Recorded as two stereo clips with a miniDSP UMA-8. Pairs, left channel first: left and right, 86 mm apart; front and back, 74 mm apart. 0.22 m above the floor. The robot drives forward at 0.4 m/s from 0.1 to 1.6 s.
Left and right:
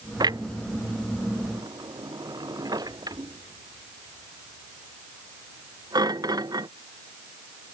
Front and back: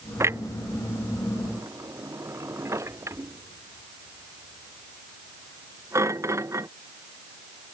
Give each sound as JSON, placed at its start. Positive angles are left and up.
{"t": 0.2, "sound": "a clunk", "azimuth_deg": -130}